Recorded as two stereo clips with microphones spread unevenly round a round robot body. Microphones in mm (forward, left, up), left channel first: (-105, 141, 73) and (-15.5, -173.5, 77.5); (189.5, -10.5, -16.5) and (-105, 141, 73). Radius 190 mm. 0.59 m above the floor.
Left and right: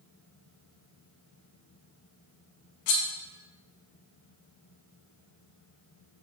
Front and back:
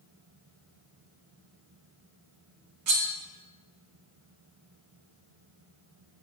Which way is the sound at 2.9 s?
105° left.